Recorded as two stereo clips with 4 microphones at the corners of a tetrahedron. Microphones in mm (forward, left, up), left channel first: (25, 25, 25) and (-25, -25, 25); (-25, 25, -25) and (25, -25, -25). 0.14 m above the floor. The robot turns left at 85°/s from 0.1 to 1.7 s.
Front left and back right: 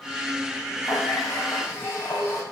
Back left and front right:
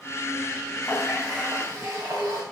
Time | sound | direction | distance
0.8 | a running tap | 60° left | 8 m